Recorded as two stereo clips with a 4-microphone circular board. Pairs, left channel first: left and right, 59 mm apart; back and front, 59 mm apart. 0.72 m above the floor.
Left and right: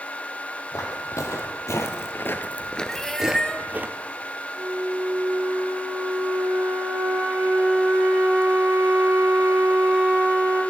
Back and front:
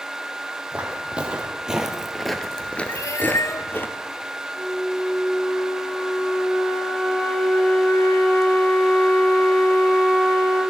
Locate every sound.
0.7 s footsteps: 70° left, 1.9 m; by 3.9 s 140° right, 1.1 m
2.9 s a cat meowing: 170° left, 0.8 m
4.5 s a flute: 120° right, 2.5 m